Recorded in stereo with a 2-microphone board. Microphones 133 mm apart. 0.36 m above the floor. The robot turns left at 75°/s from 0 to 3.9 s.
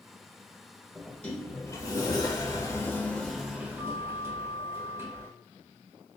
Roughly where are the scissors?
No scissors in this recording.